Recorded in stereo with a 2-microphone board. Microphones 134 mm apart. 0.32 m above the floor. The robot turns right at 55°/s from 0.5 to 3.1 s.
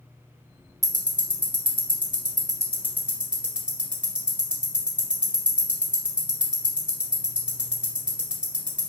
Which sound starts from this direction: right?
Ticking, at 0.8 s.